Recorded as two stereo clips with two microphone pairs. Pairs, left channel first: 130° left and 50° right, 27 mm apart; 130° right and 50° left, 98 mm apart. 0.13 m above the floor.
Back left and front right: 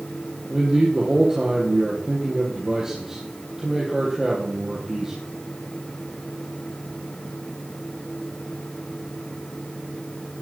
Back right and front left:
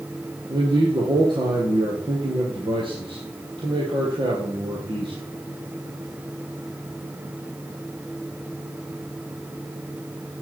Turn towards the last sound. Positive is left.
turn(degrees=15)